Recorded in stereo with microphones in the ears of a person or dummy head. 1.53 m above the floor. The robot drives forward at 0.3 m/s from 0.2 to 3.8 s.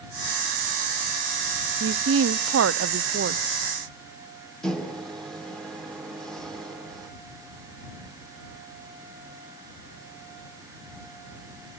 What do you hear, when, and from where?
1.8 s a woman speaking: 65° right (ahead or behind), 0.7 m
4.6 s a microwave: 5° left (ahead or behind), 1.7 m